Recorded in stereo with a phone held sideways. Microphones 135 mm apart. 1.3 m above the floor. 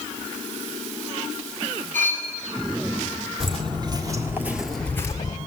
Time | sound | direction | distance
1.9 | cutlery clinking | 65° right (ahead or behind) | 5 m
3.4 | footsteps | 40° right (ahead or behind) | 2 m